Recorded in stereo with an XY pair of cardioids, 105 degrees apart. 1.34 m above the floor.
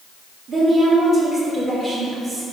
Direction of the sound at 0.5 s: 45° right.